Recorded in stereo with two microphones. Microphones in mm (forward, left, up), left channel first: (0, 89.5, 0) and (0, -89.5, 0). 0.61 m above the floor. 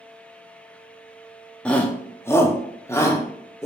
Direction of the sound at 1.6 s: 5° left (ahead or behind).